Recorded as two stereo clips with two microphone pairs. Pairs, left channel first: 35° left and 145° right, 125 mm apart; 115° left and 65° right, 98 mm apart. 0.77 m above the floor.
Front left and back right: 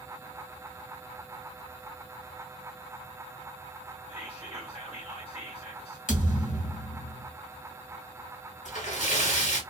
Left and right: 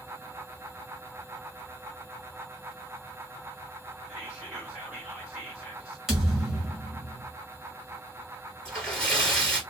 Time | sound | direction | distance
4.1 | whispering | 15° left | 1.2 m
6.1 | a thud | 25° left | 1.6 m
8.7 | a splash | 35° left | 1.9 m